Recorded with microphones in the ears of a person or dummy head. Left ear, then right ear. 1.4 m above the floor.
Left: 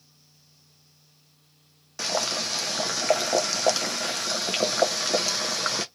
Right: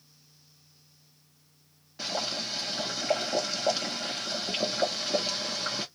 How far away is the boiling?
About 0.7 m.